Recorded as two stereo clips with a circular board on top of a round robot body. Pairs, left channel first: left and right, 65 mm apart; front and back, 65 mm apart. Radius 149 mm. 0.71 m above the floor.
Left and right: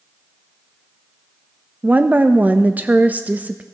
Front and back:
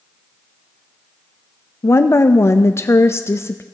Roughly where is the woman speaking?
Ahead right.